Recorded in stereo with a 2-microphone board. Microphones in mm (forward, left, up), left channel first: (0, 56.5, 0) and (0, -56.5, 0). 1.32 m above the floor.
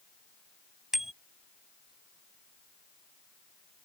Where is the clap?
No clap in this recording.